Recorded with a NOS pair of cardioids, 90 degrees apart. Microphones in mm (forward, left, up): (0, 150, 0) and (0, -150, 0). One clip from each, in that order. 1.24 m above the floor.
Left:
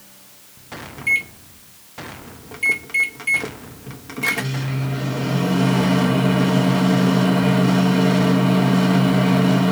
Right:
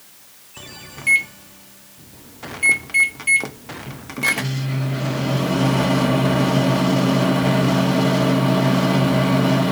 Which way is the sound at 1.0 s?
10° right.